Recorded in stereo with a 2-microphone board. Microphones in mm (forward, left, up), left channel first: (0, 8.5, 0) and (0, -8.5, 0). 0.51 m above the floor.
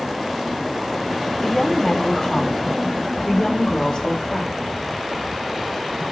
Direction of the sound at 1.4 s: 25° left (ahead or behind).